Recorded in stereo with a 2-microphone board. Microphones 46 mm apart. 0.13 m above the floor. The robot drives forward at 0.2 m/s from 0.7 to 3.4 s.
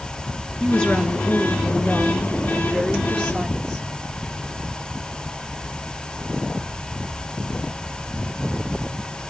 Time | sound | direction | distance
0.6 | a woman speaking | 15° left (ahead or behind) | 1.6 m